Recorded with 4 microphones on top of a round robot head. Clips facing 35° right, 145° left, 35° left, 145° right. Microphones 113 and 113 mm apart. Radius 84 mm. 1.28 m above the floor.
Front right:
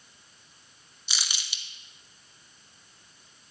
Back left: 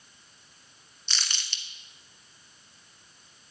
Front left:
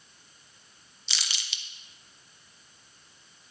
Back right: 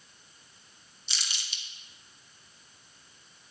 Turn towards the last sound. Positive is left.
turn(degrees=45)